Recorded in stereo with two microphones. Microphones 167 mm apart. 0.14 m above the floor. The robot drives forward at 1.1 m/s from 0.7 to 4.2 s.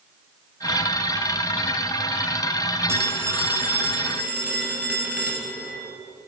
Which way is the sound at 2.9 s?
15° right (ahead or behind).